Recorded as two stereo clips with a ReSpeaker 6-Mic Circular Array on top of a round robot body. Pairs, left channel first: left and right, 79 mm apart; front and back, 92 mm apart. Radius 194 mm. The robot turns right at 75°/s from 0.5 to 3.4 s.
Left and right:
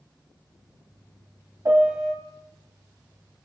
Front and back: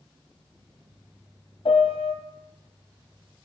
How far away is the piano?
About 0.8 m.